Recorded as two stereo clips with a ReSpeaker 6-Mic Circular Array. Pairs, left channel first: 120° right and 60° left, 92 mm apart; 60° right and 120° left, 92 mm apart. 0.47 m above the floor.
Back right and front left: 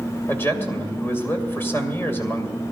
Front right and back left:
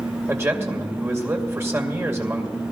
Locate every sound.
0.3 s a man speaking: straight behind, 2.5 m